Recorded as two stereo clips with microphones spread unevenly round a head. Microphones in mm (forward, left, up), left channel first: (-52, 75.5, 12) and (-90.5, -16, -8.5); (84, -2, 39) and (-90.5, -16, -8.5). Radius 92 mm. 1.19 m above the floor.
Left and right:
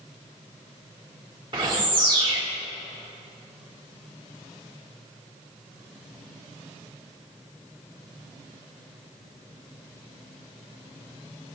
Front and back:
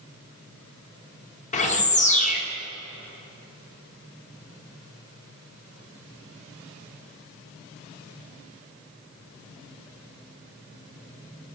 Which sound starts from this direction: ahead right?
A bird, at 1.5 s.